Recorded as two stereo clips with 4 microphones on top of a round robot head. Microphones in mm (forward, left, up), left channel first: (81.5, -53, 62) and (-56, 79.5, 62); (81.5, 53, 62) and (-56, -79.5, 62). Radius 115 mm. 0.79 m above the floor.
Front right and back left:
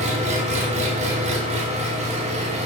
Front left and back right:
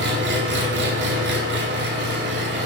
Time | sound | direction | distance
0.0 | an engine running | 165° right | 1.4 m